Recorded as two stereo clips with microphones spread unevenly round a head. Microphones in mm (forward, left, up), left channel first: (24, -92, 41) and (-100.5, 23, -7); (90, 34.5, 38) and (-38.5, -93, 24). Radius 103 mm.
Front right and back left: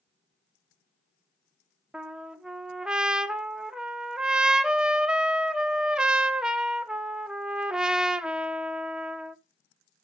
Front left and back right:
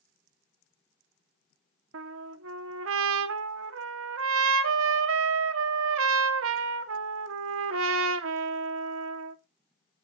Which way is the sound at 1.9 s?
130° right.